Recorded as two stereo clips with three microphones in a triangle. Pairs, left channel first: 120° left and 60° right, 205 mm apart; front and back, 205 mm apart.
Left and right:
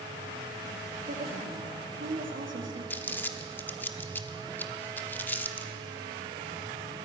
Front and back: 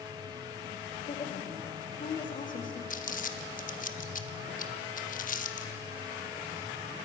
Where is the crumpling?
40° left, 0.7 m.